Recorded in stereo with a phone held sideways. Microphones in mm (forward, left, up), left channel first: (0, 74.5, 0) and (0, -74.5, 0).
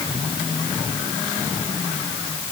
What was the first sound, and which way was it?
Only background noise.